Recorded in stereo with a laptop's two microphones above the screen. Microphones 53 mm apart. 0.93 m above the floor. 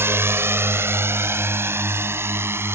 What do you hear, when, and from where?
0.0 s a drone: 50° right (ahead or behind)